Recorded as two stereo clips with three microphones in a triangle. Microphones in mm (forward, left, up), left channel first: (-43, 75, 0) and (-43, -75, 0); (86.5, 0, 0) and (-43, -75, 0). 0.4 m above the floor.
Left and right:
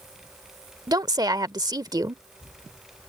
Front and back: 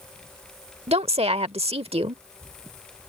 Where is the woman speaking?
140° right.